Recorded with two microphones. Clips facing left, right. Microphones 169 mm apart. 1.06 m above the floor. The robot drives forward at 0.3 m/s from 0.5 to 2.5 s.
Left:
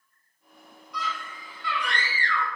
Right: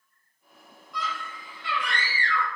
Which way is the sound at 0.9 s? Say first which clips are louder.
Even; 25° right (ahead or behind).